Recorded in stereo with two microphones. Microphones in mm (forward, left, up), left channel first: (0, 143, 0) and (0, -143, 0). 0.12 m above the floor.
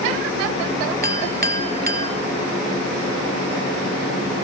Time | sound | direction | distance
1.0 | a clink | 30° right (ahead or behind) | 1.2 m